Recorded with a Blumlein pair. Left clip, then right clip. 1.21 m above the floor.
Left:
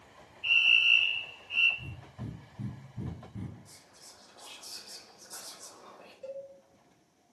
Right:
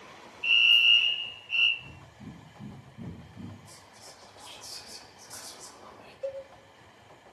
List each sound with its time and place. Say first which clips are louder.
0.4 s a fire alarm: right 3 dB; 25° right, 3 m
1.8 s breathing: left 1 dB; 50° left, 1.6 m
3.7 s whispering: right 4 dB; 10° right, 1.3 m
6.2 s a cowbell: right 6 dB; 65° right, 1.1 m